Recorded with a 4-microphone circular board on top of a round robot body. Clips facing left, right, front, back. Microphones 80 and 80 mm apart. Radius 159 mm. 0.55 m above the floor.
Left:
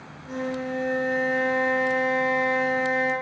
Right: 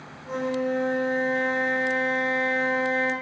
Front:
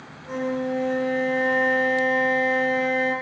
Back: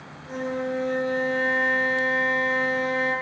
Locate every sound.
0.2 s a flute: 35° right, 0.8 m